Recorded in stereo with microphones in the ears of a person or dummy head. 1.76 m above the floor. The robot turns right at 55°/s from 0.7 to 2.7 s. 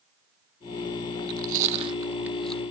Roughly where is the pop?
No pop in this recording.